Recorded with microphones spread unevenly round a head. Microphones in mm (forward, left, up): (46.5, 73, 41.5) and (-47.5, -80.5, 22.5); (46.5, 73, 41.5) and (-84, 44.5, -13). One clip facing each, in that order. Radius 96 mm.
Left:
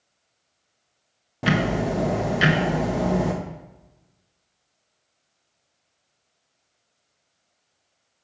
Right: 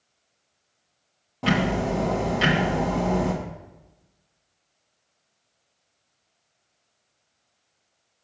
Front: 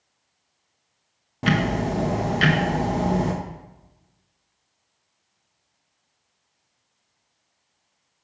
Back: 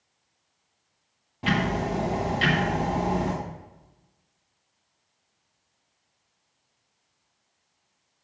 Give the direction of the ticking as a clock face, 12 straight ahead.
12 o'clock.